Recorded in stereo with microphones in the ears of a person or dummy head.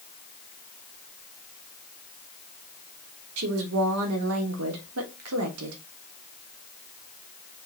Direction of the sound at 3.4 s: 85° right.